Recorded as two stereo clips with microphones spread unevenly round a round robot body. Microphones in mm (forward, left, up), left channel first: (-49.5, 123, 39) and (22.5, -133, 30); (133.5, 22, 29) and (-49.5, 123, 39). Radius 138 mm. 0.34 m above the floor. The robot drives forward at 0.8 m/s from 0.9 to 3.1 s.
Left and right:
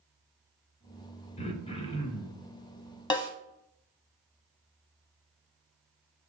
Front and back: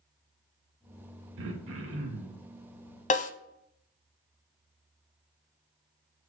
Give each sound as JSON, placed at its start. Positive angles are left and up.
{"t": 1.4, "sound": "throat clearing", "azimuth_deg": 170, "distance_m": 0.6}
{"t": 3.1, "sound": "a snare drum", "azimuth_deg": 30, "distance_m": 0.6}